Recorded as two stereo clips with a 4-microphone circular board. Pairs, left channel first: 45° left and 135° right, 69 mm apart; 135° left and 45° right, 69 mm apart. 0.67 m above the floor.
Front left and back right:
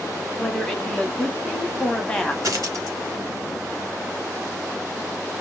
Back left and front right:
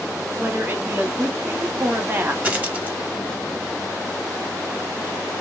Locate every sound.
0.4 s a woman speaking: 25° right, 0.9 m
2.4 s a dropped coin: 110° right, 1.0 m